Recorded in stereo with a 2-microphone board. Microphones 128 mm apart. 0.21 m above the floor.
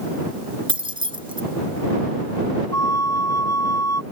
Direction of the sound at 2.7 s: 25° left (ahead or behind).